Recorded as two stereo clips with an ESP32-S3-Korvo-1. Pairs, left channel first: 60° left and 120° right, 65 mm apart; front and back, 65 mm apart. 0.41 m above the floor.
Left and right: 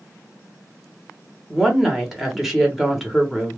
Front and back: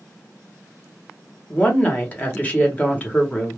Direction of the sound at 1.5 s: 35° right.